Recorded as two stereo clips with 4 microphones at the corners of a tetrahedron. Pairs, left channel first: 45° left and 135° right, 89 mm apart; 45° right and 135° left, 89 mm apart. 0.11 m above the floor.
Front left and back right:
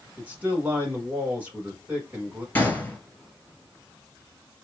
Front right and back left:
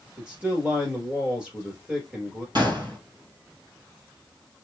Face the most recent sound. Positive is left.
turn(degrees=105)